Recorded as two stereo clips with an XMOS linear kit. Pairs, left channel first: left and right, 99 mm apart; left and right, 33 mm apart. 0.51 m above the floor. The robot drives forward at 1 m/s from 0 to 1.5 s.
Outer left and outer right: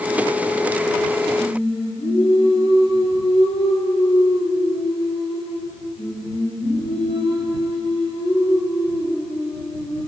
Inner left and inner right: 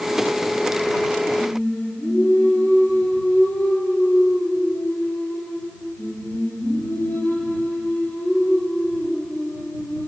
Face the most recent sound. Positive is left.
turn(degrees=70)  # may be behind; listen again after turning